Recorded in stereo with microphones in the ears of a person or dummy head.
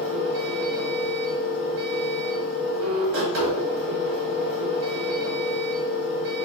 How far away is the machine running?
About 1.4 m.